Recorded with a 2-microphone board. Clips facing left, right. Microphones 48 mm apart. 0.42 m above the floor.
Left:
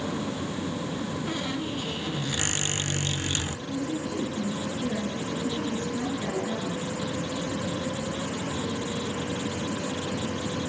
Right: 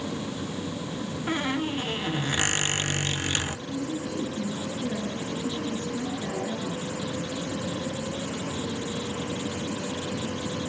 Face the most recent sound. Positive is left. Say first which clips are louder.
# left 1 dB
turn(degrees=20)  # may be behind; listen again after turning